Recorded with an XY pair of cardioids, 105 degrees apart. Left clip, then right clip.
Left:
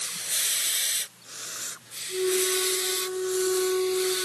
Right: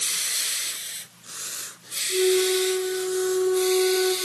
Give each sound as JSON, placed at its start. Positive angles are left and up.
{"t": 2.1, "sound": "a flute", "azimuth_deg": -35, "distance_m": 3.0}